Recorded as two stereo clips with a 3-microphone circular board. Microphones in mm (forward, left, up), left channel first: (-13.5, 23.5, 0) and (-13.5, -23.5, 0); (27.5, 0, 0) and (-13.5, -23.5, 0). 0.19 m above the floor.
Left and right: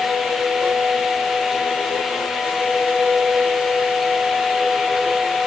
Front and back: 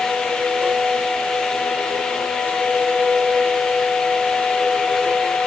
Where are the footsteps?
No footsteps in this recording.